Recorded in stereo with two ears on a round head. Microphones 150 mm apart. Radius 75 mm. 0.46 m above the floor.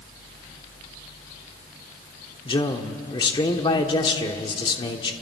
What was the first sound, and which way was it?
A man speaking, 30° left (ahead or behind).